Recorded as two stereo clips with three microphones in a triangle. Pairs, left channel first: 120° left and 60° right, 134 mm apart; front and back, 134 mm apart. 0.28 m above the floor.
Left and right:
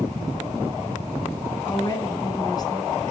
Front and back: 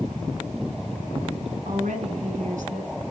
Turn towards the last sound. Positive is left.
turn(degrees=180)